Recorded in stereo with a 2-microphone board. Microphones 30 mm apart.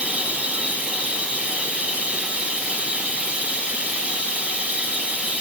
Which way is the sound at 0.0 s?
55° right (ahead or behind).